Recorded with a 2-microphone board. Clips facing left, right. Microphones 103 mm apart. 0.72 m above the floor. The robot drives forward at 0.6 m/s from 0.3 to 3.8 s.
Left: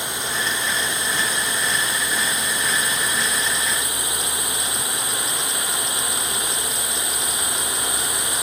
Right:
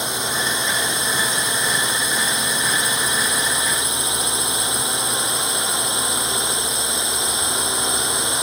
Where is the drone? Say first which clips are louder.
Right 2 dB; 20° right (ahead or behind).